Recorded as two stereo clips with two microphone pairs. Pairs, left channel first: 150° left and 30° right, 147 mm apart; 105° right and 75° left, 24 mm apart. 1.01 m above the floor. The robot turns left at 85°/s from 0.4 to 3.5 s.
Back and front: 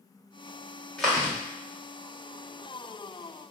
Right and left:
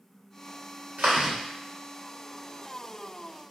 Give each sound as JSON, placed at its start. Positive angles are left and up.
{"t": 1.0, "sound": "chewing", "azimuth_deg": 65, "distance_m": 1.1}